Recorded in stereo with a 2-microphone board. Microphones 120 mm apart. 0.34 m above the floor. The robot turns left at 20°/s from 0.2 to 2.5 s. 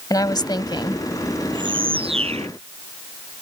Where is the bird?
40° right (ahead or behind); by 2.5 s 60° right (ahead or behind).